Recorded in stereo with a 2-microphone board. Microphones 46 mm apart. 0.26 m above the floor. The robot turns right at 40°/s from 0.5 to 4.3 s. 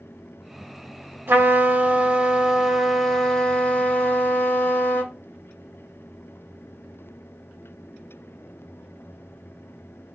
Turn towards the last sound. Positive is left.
turn(degrees=60)